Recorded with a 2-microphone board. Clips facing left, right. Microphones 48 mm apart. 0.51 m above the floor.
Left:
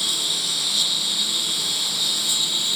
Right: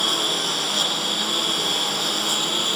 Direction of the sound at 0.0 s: 45° right (ahead or behind).